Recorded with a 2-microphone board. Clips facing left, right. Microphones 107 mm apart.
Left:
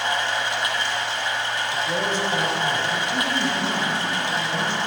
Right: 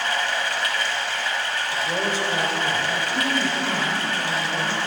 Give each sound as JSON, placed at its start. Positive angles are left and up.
{"t": 0.0, "sound": "running water", "side_deg": 20, "distance_m": 0.9}
{"t": 1.7, "sound": "a man speaking", "side_deg": -10, "distance_m": 1.1}
{"t": 3.1, "sound": "a woman speaking", "side_deg": -10, "distance_m": 1.8}